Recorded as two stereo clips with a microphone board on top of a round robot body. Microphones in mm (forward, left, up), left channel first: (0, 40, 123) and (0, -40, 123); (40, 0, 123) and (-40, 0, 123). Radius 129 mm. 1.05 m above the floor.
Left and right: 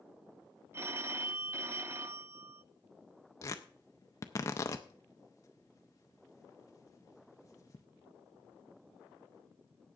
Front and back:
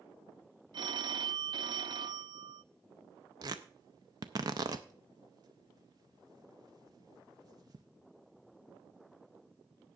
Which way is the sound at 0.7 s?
150° right.